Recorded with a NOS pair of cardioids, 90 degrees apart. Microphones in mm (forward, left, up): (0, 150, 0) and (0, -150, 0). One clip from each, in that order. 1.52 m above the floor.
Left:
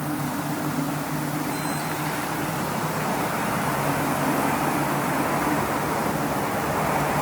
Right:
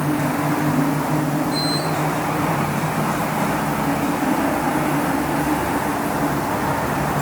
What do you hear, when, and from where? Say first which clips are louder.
0.0 s a machine running: right 7 dB; 50° right